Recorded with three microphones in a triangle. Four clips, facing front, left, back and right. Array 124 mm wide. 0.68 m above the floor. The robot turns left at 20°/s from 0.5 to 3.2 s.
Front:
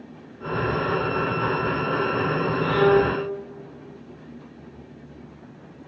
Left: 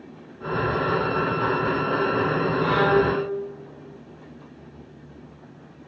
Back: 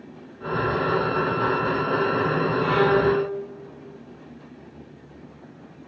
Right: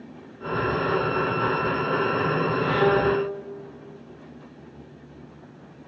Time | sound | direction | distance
2.6 | a violin | 130° left | 5 m